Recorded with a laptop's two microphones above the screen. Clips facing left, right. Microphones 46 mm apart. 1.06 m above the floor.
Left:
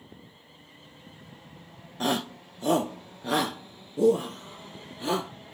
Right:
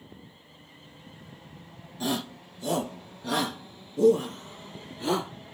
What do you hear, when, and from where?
2.0 s a shout: 55° left (ahead or behind), 0.9 m; by 5.3 s 5° left (ahead or behind), 2 m